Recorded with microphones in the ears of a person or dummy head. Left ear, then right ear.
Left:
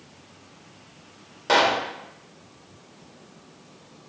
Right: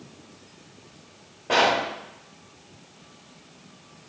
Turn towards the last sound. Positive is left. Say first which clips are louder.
# left 1 dB
turn(degrees=65)  # may be behind; listen again after turning